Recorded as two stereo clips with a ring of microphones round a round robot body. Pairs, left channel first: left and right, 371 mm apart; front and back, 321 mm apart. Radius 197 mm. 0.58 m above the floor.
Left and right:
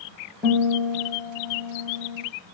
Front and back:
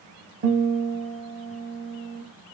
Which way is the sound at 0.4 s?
Straight behind.